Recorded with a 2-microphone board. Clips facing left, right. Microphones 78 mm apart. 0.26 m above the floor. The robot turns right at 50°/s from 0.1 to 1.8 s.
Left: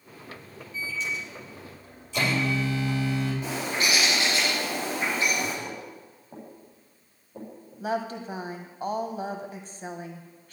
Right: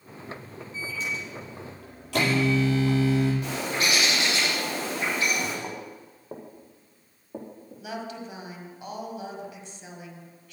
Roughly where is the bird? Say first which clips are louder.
Even; centre.